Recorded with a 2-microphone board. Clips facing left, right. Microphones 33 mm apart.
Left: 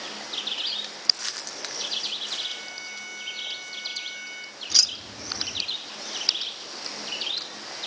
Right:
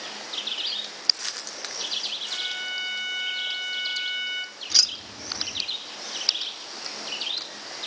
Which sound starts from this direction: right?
A violin, at 2.3 s.